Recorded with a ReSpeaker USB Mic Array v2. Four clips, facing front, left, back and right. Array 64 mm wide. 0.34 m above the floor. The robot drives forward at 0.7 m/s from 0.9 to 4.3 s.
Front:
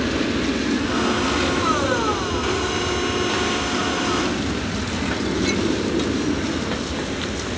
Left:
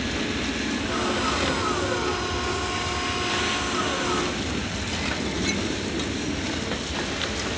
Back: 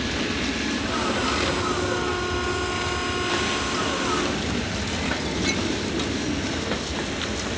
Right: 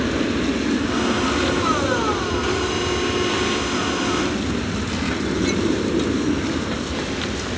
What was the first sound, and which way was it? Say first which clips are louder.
An aircraft: right 7 dB, front 5 dB; 55° right.